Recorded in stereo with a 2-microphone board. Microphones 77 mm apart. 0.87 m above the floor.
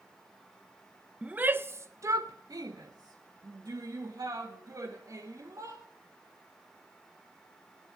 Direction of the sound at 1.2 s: 15° right (ahead or behind).